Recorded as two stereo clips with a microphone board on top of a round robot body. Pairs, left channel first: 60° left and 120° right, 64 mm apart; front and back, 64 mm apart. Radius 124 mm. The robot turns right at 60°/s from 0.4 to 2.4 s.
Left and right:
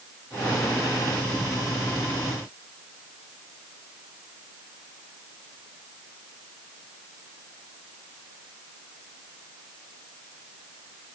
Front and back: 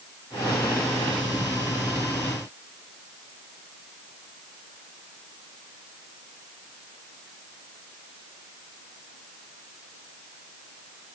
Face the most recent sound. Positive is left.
No sound to turn to.